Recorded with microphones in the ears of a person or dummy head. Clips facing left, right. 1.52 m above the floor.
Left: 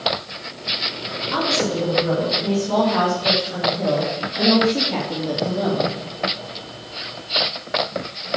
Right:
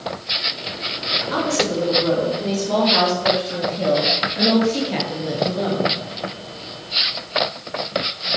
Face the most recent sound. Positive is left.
turn(degrees=10)  # may be behind; listen again after turning